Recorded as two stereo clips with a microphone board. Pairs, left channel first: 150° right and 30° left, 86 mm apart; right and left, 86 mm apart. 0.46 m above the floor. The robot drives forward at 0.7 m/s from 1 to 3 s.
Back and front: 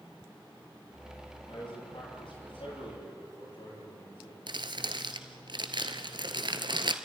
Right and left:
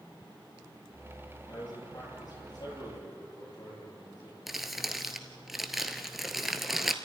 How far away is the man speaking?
About 10 m.